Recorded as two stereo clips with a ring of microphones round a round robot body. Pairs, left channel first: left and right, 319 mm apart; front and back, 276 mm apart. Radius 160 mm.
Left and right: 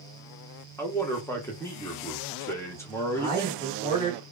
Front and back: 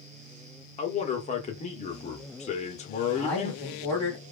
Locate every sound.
0.8 s a man speaking: 20° left, 0.7 m
3.1 s a man speaking: 160° right, 1.0 m